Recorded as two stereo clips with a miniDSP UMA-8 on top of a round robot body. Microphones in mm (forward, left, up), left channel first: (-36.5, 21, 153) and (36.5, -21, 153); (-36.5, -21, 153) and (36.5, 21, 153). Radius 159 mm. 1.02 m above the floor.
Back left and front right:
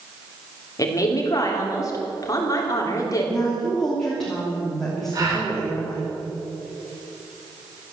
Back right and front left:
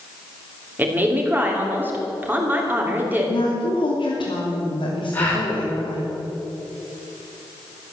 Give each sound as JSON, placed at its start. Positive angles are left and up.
{"t": 0.8, "sound": "a woman speaking", "azimuth_deg": 100, "distance_m": 3.0}
{"t": 3.3, "sound": "a woman speaking", "azimuth_deg": -125, "distance_m": 3.0}
{"t": 5.1, "sound": "a gasp", "azimuth_deg": -80, "distance_m": 4.5}